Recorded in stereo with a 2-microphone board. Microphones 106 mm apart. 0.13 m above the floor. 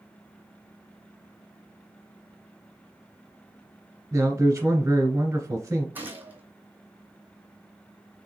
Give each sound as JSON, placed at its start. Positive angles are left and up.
{"t": 4.1, "sound": "a man speaking", "side_deg": -25, "distance_m": 1.4}
{"t": 6.0, "sound": "a gunshot", "side_deg": -20, "distance_m": 1.0}